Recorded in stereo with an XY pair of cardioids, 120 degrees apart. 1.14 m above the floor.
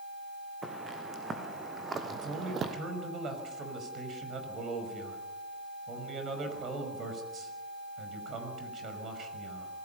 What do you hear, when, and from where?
0.6 s footsteps: 20° right, 4.5 m; by 2.8 s 55° right, 2 m
2.1 s a man speaking: 45° right, 5.5 m